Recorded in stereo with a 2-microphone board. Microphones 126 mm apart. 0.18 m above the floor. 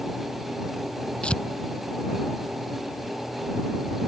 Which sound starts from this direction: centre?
Tearing paper, at 1.2 s.